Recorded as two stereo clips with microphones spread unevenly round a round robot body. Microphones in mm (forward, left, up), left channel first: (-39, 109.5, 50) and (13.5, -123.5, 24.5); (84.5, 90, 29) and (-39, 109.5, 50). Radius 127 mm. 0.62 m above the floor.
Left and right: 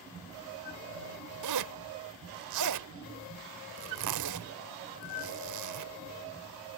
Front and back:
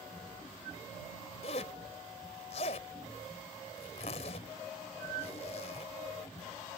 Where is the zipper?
65° right.